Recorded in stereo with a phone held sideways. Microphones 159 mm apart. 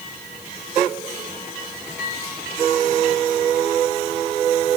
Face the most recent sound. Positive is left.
No sound to turn to.